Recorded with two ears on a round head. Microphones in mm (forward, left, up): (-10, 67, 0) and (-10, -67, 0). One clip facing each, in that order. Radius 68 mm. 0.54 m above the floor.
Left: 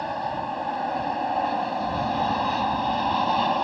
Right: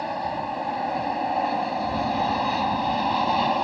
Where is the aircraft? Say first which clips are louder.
Even; 5° right (ahead or behind).